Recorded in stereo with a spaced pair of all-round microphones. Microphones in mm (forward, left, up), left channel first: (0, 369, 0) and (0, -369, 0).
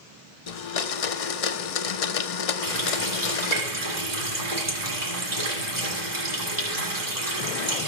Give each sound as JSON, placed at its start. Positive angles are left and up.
{"t": 0.5, "sound": "a blender", "side_deg": 55, "distance_m": 0.6}
{"t": 2.6, "sound": "a running tap", "side_deg": -60, "distance_m": 2.0}